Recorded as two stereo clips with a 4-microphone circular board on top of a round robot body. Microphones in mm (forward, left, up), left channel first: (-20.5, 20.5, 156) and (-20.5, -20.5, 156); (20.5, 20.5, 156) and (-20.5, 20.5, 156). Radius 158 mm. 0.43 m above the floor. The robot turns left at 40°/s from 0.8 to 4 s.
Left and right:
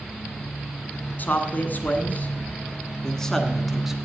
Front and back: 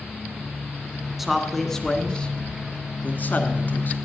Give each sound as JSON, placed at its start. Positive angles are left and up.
{"t": 1.2, "sound": "a man speaking", "azimuth_deg": 100, "distance_m": 1.8}